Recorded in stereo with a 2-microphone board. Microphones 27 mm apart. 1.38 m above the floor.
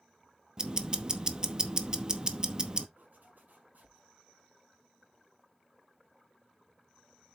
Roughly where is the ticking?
Right.